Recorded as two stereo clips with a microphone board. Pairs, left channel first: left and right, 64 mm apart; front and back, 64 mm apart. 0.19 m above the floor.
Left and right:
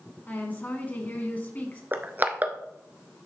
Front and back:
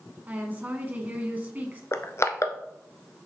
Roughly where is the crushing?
Ahead right.